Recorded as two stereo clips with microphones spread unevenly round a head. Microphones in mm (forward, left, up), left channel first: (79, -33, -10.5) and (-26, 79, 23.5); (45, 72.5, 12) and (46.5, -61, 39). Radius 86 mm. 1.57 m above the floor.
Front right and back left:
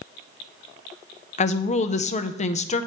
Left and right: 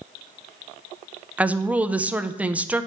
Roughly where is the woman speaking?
Ahead.